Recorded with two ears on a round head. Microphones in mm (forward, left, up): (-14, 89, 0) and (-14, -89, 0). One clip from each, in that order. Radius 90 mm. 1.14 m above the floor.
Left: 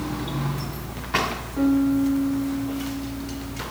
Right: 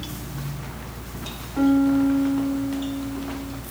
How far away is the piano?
About 2 m.